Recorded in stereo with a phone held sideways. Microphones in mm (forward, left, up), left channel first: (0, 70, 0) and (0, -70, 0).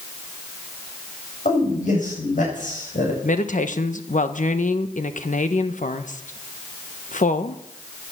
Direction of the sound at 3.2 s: 65° left (ahead or behind).